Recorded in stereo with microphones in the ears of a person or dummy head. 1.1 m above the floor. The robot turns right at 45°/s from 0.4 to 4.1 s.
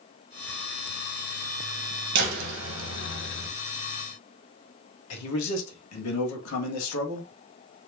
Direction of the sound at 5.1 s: 75° left (ahead or behind).